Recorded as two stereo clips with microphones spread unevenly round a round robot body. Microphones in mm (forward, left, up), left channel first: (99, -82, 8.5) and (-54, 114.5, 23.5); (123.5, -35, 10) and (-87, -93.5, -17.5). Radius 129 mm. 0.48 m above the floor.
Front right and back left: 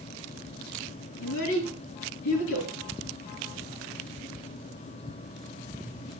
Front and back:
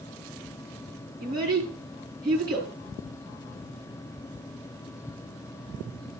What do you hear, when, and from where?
1.2 s a child speaking: 90° right, 5.5 m